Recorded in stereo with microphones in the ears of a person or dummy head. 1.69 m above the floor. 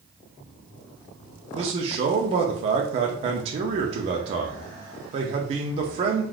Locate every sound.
1.6 s a man speaking: 35° right (ahead or behind), 0.5 m